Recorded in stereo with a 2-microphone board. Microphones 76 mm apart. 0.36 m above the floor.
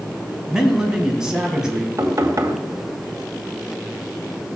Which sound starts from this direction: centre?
A man speaking, at 0.5 s.